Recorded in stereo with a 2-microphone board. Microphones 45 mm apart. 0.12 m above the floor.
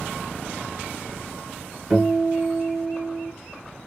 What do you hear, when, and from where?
1.9 s a guitar: 5° right (ahead or behind), 1.7 m